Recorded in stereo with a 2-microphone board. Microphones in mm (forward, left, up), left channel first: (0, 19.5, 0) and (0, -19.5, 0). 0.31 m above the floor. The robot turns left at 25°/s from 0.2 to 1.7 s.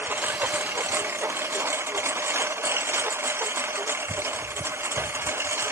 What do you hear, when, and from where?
0.0 s a lawn mower: 55° right (ahead or behind); by 5.7 s 85° right